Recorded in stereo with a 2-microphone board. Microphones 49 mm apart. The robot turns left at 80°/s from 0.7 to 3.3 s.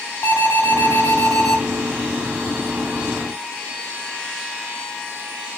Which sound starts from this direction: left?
An alarm, at 0.2 s.